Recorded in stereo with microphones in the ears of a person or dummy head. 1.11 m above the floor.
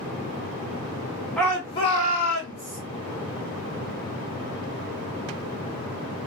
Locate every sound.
1.4 s a shout: 5° left (ahead or behind), 1.2 m; by 2.8 s 60° left (ahead or behind), 1.7 m